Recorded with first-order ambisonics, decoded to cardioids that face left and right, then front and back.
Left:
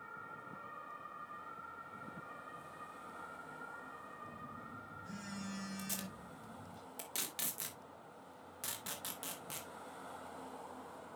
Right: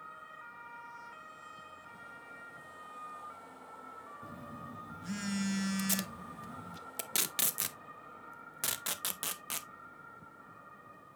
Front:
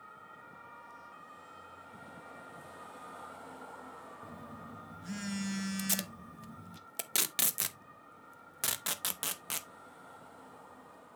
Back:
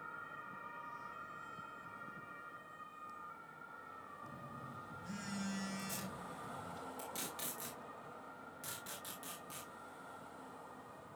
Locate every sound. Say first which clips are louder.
4.2 s a phone buzzing: right 2 dB, front 2 dB; 60° right, 0.9 m
5.8 s tape being pulled: right 8 dB, front 7 dB; 30° right, 0.7 m